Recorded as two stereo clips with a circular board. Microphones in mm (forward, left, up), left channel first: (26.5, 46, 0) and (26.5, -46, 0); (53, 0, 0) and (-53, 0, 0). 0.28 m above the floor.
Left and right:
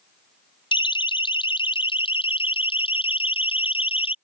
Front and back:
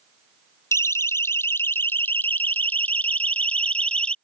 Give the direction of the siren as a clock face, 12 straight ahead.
10 o'clock.